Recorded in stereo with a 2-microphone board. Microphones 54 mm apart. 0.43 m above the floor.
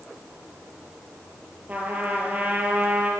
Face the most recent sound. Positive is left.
turn(degrees=-25)  # may be behind; listen again after turning